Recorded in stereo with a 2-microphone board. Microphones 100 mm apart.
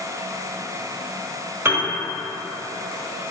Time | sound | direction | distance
1.6 | a piano | 25° right (ahead or behind) | 0.8 m